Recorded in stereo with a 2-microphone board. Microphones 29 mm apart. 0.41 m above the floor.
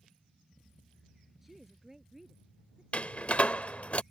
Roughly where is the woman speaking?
Centre.